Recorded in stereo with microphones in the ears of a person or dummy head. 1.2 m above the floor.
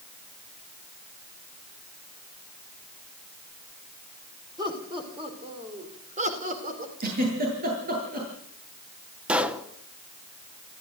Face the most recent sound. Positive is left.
turn(degrees=-5)  # may be behind; listen again after turning